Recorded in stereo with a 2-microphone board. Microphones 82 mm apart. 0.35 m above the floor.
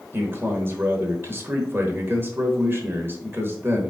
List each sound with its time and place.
0.1 s a man speaking: 30° right (ahead or behind), 1.0 m